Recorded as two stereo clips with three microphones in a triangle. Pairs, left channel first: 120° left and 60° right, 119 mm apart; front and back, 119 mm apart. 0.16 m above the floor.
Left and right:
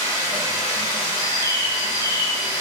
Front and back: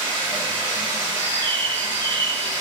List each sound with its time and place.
0.0 s running water: 145° left, 1.3 m
1.2 s a bird: 70° left, 0.5 m